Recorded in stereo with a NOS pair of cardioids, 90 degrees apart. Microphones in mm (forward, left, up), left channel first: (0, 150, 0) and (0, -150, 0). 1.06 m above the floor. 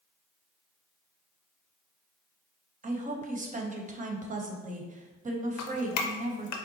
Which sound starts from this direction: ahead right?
A woman speaking, at 2.8 s.